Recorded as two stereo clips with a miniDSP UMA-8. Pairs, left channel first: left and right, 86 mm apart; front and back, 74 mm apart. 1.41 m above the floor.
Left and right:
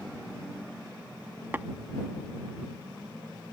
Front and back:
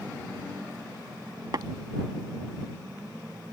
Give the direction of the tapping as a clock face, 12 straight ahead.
5 o'clock.